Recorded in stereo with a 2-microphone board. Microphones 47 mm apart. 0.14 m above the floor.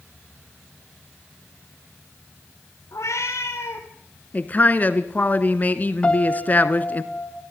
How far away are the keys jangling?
No keys jangling in this recording.